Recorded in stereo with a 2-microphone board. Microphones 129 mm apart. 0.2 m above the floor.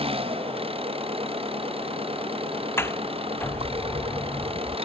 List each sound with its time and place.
0.0 s an engine running: 45° right (ahead or behind)
2.8 s a sliding door: 20° left (ahead or behind)